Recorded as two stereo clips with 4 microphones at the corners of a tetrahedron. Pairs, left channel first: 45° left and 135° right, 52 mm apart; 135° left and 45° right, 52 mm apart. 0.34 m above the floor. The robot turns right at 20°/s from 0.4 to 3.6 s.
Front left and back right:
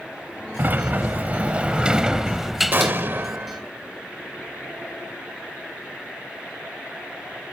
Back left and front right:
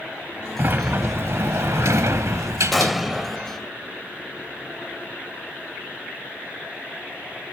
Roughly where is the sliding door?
Right.